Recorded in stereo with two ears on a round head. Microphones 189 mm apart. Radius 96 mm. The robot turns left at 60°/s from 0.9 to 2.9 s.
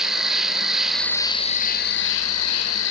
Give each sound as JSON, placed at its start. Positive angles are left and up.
{"t": 0.0, "sound": "an insect", "azimuth_deg": 180, "distance_m": 1.8}